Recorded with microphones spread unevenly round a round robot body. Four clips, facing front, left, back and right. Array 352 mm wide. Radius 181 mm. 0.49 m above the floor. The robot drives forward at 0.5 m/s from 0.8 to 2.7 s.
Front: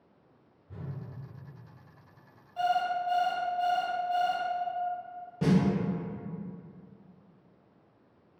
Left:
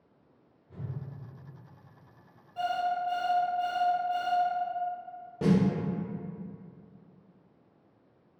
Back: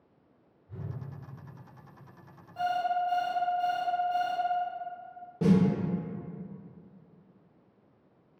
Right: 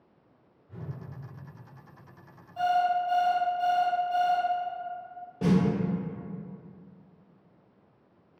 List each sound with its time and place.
0.7 s a whoosh: 10° left, 1.5 m
2.6 s an alarm clock: 155° left, 0.9 m
5.4 s a snare drum: 150° left, 1.1 m